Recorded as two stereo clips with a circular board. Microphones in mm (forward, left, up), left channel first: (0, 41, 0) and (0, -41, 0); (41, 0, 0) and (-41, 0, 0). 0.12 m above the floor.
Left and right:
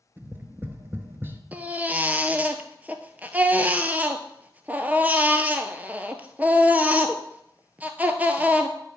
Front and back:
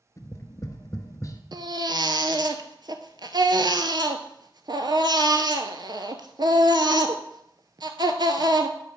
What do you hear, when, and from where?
0.2 s tapping: 35° right, 0.9 m
1.5 s a baby crying: 160° right, 0.8 m